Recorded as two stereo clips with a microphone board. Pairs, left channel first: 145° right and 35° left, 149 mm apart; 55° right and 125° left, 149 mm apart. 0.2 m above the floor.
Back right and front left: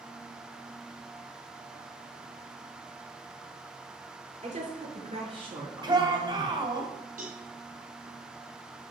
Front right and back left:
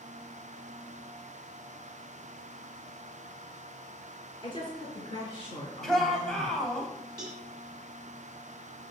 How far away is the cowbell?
About 2.5 m.